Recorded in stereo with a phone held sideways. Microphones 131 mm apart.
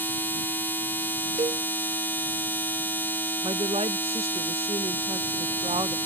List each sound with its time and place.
0.0 s a machine running: 15° left (ahead or behind)
1.4 s a cowbell: 55° right (ahead or behind)
3.4 s a woman speaking: 50° right (ahead or behind)